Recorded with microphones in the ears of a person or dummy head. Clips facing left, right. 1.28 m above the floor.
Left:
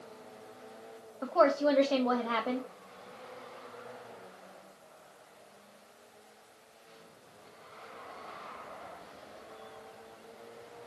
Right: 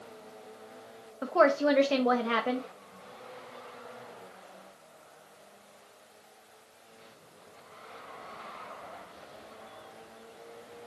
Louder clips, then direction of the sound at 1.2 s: Right 2 dB; 30° right (ahead or behind).